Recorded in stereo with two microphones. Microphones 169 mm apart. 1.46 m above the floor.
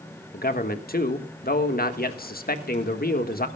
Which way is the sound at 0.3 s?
60° left (ahead or behind).